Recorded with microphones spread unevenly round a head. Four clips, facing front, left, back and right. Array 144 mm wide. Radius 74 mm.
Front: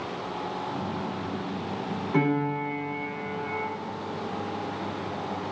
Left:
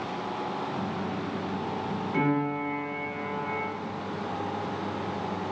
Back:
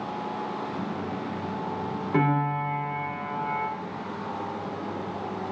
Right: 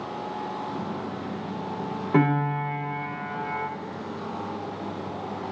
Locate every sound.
2.1 s a piano: 95° right, 3.5 m